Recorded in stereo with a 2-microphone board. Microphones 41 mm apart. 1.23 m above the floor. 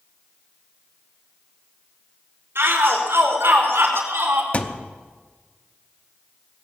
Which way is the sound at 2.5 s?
85° right.